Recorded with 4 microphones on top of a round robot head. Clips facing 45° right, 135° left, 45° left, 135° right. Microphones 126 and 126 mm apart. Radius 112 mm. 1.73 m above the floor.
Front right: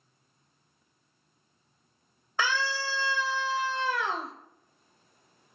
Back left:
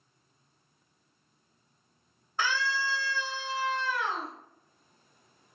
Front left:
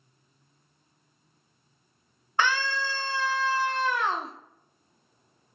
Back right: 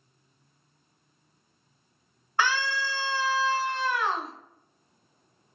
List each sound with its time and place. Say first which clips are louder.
2.4 s a scream: front right 1 dB, even; 25° right, 0.7 m